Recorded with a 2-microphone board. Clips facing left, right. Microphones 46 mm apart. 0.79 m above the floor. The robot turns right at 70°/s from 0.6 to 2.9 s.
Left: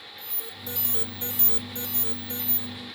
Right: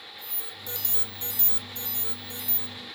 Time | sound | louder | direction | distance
0.2 | an alarm | left 3 dB | 5° right | 1.4 m